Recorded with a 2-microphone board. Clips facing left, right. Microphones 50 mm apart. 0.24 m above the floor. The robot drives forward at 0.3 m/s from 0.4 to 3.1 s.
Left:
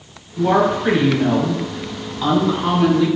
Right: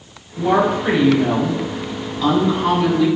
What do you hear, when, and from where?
0.4 s a woman speaking: 10° left (ahead or behind), 1.0 m